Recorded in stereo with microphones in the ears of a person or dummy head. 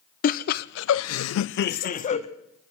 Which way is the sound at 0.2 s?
45° left (ahead or behind).